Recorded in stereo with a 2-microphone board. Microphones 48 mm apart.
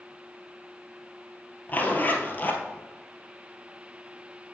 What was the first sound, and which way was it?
A zipper, 40° left (ahead or behind).